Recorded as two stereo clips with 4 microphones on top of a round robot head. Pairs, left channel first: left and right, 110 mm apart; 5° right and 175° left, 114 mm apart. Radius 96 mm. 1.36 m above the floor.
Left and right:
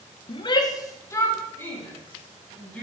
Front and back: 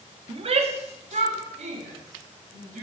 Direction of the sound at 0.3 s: 135° left.